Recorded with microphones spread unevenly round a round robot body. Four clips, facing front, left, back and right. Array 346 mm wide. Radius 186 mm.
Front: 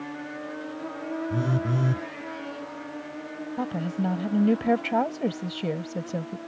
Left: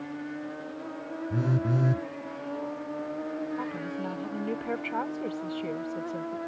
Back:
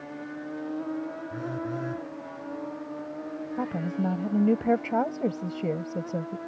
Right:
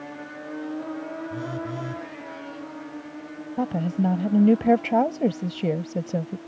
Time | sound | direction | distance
1.3 | a phone buzzing | 35° left | ?
3.6 | a woman speaking | 80° right | ?